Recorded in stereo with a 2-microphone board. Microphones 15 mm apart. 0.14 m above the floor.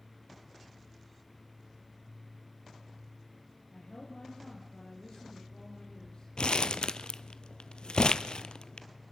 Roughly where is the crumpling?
Left.